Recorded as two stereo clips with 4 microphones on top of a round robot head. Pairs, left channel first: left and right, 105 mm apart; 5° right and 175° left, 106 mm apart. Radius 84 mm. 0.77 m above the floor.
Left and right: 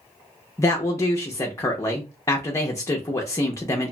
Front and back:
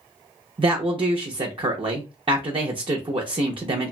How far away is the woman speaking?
About 0.6 m.